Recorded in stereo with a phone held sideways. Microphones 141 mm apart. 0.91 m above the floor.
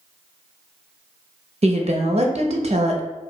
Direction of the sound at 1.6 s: 45° right (ahead or behind).